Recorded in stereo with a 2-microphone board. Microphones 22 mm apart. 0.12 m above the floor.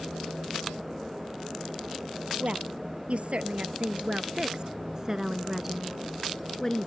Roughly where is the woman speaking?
Right.